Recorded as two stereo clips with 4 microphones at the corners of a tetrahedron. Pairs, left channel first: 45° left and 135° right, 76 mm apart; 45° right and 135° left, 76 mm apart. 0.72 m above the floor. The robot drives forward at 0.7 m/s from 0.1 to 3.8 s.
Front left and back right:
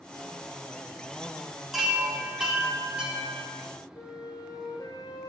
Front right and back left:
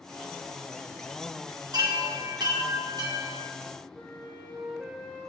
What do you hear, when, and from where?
1.7 s a chime: 135° left, 2 m; by 3.5 s 155° left, 3 m
4.0 s a flute: 70° left, 3.5 m